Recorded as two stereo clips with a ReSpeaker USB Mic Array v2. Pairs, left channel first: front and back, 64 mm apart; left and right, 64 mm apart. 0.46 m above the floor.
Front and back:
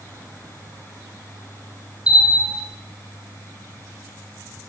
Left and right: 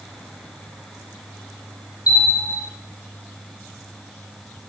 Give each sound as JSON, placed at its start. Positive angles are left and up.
{"t": 2.1, "sound": "a bell", "azimuth_deg": 105, "distance_m": 4.5}